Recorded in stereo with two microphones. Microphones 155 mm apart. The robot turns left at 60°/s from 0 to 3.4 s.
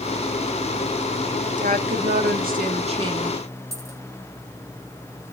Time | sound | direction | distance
1.6 | a woman speaking | 60° right | 1.9 m
3.7 | a dropped coin | 20° right (ahead or behind) | 4.5 m